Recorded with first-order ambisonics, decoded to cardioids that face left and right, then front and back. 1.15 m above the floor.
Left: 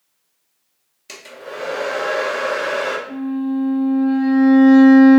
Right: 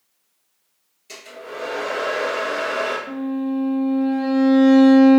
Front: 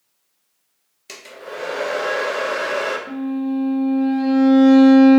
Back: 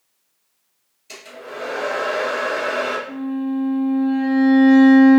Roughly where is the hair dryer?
Ahead left.